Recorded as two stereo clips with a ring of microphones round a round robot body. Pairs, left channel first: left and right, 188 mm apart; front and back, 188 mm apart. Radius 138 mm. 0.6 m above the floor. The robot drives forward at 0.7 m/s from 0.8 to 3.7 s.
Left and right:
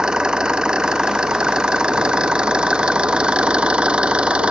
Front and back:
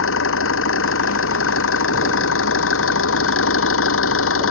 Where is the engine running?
5° right.